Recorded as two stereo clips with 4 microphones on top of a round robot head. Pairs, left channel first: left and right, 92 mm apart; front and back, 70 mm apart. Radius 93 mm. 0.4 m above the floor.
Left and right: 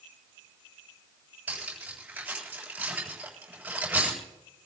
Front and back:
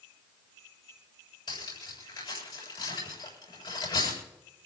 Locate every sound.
1.5 s cutlery clinking: 15° right, 7 m